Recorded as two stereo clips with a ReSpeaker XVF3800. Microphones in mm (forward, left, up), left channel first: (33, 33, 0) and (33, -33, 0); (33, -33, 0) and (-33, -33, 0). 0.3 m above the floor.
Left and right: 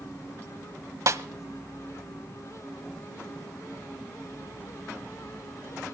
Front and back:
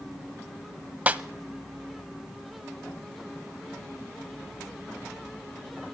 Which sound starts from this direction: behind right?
A snare drum, at 1.1 s.